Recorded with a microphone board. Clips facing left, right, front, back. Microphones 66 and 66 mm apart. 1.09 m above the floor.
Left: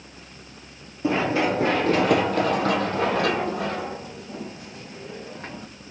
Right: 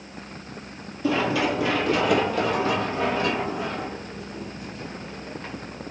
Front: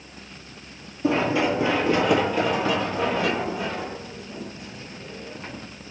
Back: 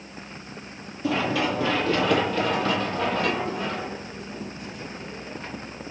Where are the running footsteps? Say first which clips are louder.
Left 1 dB, front 3 dB; 45° left, 1.3 m; by 5.7 s 90° left, 3 m.